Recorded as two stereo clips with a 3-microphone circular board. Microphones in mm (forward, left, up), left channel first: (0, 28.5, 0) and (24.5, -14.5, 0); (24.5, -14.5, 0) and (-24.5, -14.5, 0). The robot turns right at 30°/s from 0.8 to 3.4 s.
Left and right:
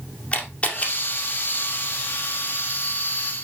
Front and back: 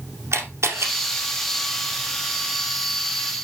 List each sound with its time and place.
0.3 s a camera shutter: straight behind, 2 m; by 0.9 s 175° right, 2 m